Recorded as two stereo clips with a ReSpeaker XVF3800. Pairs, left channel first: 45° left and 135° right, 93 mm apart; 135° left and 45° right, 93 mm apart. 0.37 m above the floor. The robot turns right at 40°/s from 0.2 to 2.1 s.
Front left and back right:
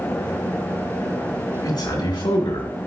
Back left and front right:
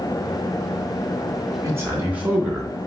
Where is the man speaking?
5° left, 3 m; by 2.7 s 25° left, 3 m.